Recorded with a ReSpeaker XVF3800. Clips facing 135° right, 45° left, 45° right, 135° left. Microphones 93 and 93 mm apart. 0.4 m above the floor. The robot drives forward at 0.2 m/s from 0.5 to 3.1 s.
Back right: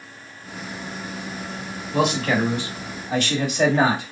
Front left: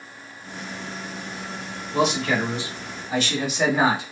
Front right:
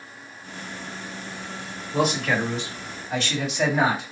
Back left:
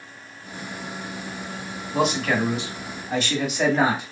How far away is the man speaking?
About 1.6 m.